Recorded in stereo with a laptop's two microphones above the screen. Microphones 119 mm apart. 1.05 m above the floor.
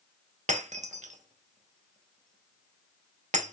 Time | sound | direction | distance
0.5 | breaking glass | 80° right | 0.9 m